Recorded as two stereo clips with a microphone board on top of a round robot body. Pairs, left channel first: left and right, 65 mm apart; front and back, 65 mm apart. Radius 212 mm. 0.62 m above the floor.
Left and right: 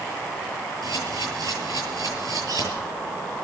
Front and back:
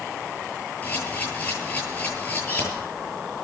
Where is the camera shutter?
65° right, 10 m.